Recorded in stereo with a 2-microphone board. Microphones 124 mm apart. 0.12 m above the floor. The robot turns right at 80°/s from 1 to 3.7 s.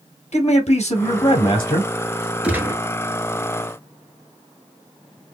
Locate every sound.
0.3 s a man speaking: 85° left, 2.5 m; by 1.9 s 155° left, 2.5 m
2.4 s a gunshot: 10° right (ahead or behind), 0.9 m; by 2.8 s 30° right (ahead or behind), 0.9 m